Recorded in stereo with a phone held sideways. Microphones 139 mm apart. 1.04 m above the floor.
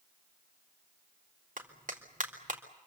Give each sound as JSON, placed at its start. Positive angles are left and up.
{"t": 1.6, "sound": "a clap", "side_deg": -65, "distance_m": 3.5}